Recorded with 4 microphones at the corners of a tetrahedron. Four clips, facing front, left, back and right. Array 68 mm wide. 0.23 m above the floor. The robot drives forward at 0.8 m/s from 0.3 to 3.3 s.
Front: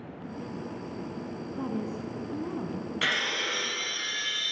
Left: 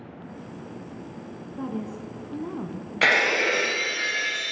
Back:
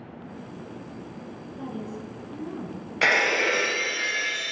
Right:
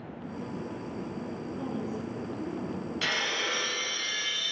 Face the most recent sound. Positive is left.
turn(degrees=130)